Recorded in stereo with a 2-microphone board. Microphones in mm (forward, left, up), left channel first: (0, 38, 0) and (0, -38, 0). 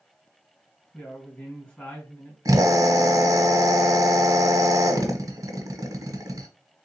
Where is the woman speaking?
20° left (ahead or behind), 3 m.